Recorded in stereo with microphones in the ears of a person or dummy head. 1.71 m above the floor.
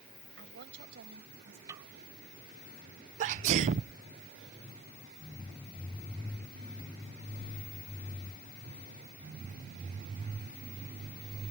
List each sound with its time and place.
0.4 s a woman speaking: 70° right (ahead or behind); by 1.6 s 75° right (ahead or behind)
1.7 s a snare drum: 20° right (ahead or behind)
3.2 s a sneeze: 40° right (ahead or behind)